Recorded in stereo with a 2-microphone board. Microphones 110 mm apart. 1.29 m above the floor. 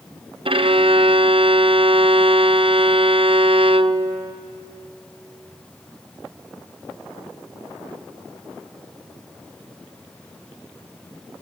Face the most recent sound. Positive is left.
turn(degrees=-55)  # may be behind; listen again after turning